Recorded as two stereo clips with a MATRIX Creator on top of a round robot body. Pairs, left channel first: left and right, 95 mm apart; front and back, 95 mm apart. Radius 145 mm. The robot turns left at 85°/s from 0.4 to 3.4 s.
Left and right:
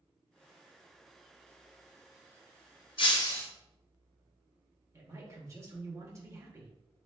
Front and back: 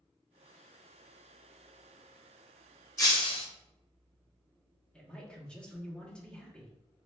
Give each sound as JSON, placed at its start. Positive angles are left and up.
{"t": 3.0, "sound": "breaking glass", "azimuth_deg": 60, "distance_m": 0.7}
{"t": 4.9, "sound": "a man speaking", "azimuth_deg": -70, "distance_m": 1.0}